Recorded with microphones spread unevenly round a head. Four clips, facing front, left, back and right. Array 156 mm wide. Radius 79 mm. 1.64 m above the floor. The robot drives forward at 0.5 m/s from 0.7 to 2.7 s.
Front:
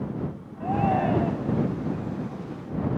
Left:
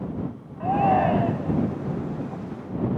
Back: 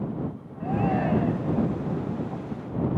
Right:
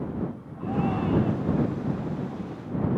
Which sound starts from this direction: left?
A shout, at 0.6 s.